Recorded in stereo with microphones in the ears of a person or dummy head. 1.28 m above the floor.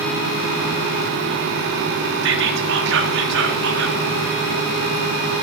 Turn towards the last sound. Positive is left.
turn(degrees=-65)  # may be behind; listen again after turning